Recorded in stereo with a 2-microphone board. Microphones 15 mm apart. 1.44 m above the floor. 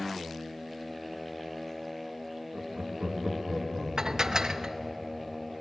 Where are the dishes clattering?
45° right (ahead or behind), 0.8 m.